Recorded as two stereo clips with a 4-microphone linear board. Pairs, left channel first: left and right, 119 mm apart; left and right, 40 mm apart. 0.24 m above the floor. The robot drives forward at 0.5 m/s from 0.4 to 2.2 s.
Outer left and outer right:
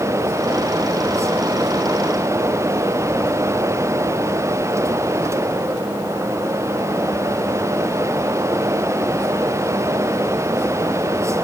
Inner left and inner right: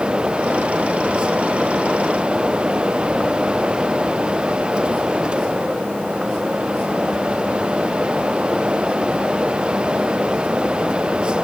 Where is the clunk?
I don't hear a clunk.